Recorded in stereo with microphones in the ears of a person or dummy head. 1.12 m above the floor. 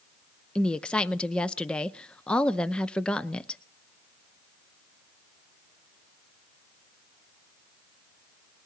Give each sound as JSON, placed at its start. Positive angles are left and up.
{"t": 0.6, "sound": "a woman speaking", "side_deg": 5, "distance_m": 0.7}